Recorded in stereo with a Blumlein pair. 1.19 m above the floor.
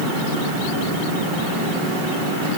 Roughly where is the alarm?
No alarm in this recording.